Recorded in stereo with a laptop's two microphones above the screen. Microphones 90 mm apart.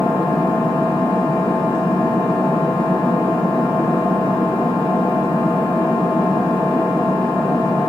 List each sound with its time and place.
0.0 s an engine running: 65° left (ahead or behind), 1.0 m